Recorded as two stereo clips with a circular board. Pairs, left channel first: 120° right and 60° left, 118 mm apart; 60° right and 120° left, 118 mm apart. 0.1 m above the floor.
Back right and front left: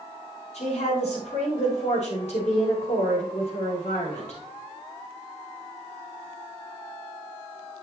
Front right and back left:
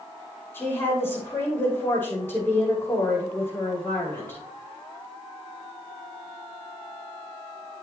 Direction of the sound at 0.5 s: 135° right.